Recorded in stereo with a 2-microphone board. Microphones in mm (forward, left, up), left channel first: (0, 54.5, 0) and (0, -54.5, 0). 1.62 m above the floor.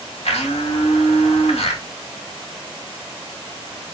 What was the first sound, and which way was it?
A blender, 80° left.